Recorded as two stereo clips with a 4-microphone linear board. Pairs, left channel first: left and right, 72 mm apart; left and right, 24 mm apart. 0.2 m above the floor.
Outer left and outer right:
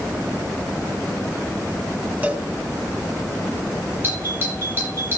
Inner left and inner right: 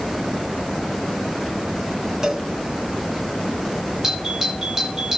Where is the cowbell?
20° right (ahead or behind), 1.8 m.